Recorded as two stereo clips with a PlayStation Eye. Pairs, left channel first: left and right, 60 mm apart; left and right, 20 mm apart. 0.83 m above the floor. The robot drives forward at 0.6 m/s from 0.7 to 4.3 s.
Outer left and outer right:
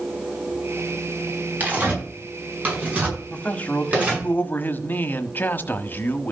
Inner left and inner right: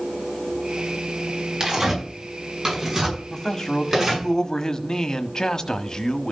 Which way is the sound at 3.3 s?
25° left (ahead or behind).